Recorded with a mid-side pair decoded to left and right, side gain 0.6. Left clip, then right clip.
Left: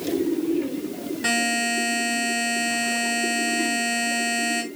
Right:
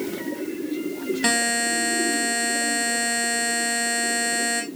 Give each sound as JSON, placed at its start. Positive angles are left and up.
{"t": 1.2, "sound": "a buzzer", "azimuth_deg": -40, "distance_m": 4.0}